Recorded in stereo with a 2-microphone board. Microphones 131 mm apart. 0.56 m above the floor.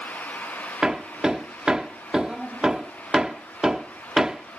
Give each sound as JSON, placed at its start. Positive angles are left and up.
{"t": 0.8, "sound": "hammering", "side_deg": -5}